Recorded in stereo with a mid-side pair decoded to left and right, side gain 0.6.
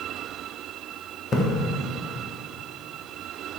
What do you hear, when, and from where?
1.3 s a splash: 35° left, 1.5 m